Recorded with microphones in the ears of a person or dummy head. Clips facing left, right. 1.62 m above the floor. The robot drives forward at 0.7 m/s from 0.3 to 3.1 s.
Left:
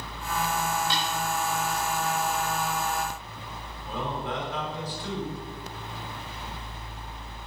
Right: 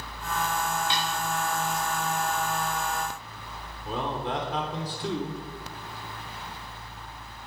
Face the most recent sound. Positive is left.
turn(degrees=-25)  # may be behind; listen again after turning